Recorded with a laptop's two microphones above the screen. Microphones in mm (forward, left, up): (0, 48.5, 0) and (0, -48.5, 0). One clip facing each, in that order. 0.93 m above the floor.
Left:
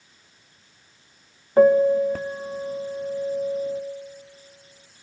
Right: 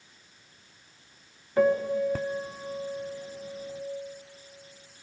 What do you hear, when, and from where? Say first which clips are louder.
1.6 s a piano: left 8 dB; 30° left (ahead or behind), 0.9 m